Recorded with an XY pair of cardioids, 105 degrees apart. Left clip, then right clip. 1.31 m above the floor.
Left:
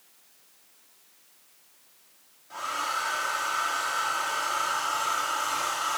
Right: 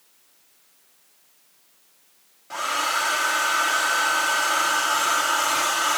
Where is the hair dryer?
65° right, 2.5 m.